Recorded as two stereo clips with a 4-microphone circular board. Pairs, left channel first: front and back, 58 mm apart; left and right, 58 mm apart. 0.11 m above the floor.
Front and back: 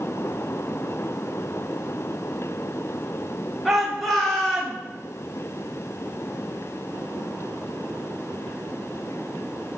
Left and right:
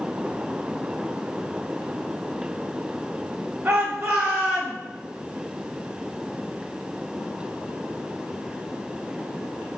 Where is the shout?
90° right, 1.4 m; by 4.8 s 15° right, 1.4 m.